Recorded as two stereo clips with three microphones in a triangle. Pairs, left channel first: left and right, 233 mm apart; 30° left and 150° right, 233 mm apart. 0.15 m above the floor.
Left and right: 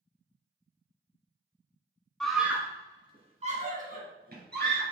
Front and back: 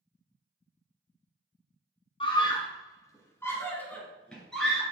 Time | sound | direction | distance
2.2 | a scream | 5° left | 1.4 m